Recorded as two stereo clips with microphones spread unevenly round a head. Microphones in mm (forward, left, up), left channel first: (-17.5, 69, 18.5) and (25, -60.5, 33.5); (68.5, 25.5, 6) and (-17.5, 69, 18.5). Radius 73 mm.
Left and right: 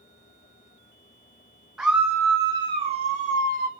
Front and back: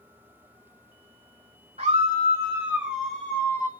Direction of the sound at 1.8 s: 160° right.